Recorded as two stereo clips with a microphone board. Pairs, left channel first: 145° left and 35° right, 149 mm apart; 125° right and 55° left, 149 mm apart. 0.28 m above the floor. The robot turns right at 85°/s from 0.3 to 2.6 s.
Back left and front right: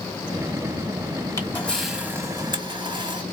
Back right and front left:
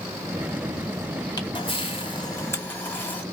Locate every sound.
1.4 s a camera shutter: 165° right, 1.8 m; by 3.2 s 60° right, 1.8 m